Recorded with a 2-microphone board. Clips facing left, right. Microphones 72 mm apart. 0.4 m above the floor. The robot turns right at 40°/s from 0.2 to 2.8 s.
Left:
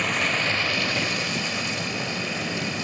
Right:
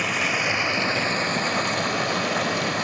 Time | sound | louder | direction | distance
0.0 | running water | right 1 dB | 175° right | 0.9 m